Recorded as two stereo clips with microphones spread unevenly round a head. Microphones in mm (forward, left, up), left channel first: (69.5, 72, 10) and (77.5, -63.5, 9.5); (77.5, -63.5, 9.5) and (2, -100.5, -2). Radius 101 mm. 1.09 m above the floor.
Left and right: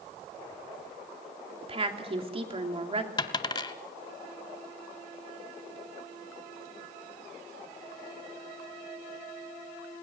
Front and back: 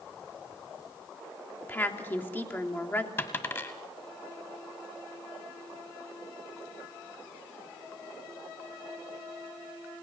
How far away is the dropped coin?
About 1.1 m.